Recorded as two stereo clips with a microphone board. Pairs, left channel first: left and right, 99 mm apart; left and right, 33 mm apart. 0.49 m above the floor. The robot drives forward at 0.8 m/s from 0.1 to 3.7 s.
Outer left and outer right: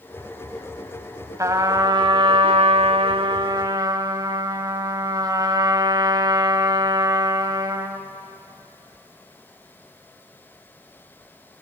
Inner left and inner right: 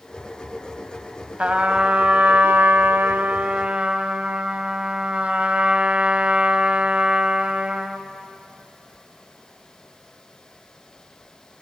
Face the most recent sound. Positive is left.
turn(degrees=-40)  # may be behind; listen again after turning